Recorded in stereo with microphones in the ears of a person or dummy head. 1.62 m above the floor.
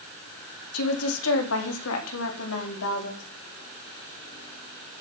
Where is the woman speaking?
80° left, 3 m; by 3.2 s 85° left, 5 m.